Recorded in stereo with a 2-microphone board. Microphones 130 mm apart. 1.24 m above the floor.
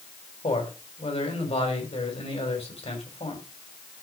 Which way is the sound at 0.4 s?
50° left (ahead or behind).